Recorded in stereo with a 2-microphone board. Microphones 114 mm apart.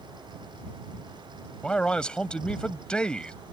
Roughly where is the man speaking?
Centre.